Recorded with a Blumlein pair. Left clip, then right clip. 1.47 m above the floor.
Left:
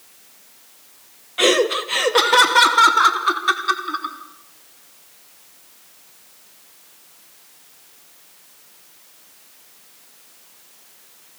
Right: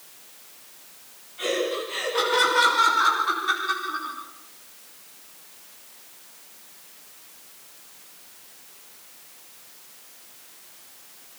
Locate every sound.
1.4 s laughter: 50° left, 2 m; by 4.2 s 65° left, 5.5 m